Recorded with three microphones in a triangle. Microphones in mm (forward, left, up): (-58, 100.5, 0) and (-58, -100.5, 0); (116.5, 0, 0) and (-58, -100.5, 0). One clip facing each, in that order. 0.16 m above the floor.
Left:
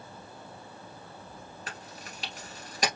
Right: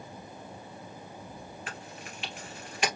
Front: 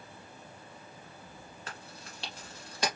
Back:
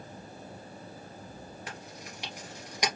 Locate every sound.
1.7 s chewing: 135° left, 2.5 m